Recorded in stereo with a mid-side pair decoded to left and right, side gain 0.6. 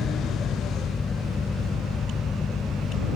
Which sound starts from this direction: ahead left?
A fan, at 0.0 s.